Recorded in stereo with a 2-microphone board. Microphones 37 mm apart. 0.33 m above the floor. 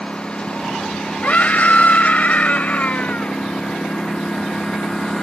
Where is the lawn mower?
25° left (ahead or behind); by 5.2 s 15° left (ahead or behind).